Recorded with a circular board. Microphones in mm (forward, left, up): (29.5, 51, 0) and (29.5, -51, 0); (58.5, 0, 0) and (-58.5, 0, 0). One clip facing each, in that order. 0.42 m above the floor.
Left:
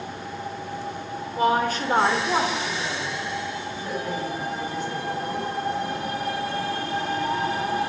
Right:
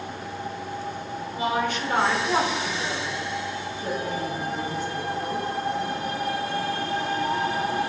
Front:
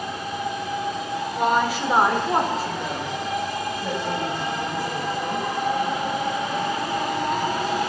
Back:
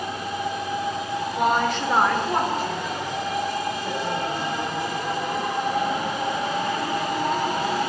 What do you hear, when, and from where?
1.4 s a woman speaking: 95° left, 1.4 m; by 5.5 s 45° right, 3.5 m